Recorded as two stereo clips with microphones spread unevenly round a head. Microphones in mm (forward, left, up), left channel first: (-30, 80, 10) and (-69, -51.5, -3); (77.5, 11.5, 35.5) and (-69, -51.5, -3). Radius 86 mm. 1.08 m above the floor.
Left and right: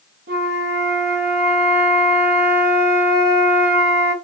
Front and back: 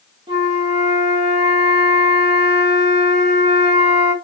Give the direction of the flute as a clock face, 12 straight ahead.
3 o'clock.